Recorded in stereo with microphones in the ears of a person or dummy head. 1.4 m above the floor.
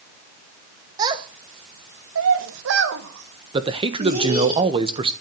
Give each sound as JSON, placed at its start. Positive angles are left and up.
{"t": 1.0, "sound": "a child speaking", "side_deg": -20, "distance_m": 1.6}
{"t": 3.5, "sound": "a man speaking", "side_deg": -30, "distance_m": 1.3}